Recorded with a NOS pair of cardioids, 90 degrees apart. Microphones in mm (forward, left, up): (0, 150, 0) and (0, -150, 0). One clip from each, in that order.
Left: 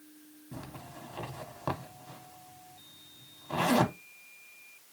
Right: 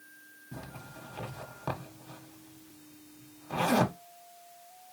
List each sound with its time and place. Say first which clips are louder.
0.5 s a zipper: left 1 dB; 10° left, 1.3 m